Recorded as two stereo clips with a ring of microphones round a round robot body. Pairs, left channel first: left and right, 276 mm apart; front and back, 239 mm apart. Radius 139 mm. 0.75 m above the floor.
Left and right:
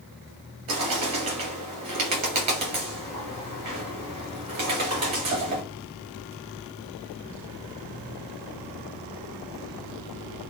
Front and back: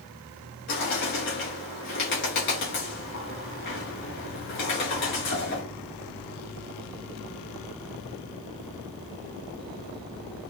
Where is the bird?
55° right, 2.5 m.